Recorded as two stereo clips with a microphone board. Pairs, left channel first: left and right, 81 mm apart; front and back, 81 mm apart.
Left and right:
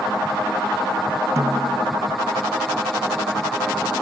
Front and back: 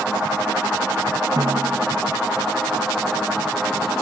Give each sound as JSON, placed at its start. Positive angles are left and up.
{"t": 1.4, "sound": "a snare drum", "azimuth_deg": -140}